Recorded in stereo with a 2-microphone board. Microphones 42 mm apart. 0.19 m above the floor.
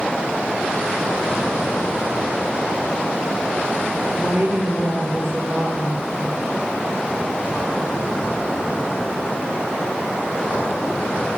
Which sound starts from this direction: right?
A woman speaking, at 4.1 s.